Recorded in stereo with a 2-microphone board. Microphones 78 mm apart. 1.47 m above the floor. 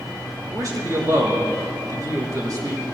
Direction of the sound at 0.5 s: 50° right (ahead or behind).